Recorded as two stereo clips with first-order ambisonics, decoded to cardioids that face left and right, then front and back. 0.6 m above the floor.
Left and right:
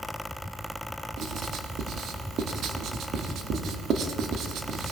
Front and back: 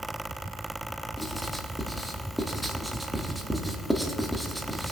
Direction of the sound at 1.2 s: 95° right.